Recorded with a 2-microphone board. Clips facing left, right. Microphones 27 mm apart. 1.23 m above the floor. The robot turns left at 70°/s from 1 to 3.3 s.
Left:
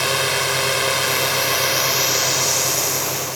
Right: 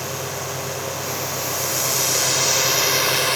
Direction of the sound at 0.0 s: 95° left.